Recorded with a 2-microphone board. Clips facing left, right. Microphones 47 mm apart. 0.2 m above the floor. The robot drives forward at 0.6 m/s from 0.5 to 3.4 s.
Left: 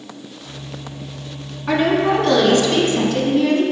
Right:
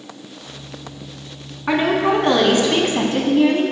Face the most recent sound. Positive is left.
turn(degrees=-30)  # may be behind; listen again after turning